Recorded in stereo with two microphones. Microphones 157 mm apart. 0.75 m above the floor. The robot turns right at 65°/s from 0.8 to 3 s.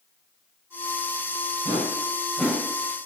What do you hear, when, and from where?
1.6 s a whoosh: 50° left (ahead or behind), 3 m; by 2.6 s 10° right (ahead or behind), 3 m